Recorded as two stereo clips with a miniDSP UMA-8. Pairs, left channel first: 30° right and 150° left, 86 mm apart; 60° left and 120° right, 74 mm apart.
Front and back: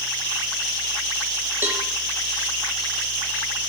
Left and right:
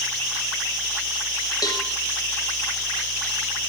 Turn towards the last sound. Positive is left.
turn(degrees=85)